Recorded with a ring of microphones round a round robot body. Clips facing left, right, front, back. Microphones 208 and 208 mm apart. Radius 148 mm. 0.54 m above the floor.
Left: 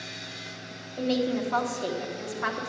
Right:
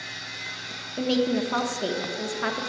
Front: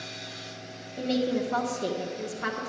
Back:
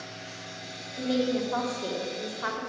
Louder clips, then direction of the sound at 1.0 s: Right 3 dB, even; 50° right.